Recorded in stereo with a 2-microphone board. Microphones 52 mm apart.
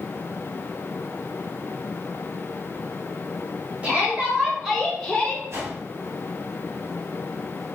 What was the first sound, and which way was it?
A shout, 25° right (ahead or behind).